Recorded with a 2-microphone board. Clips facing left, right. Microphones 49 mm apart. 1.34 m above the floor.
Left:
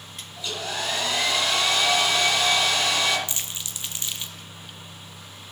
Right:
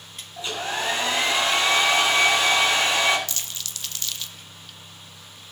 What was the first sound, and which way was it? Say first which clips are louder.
A hair dryer: right 3 dB; 30° right (ahead or behind).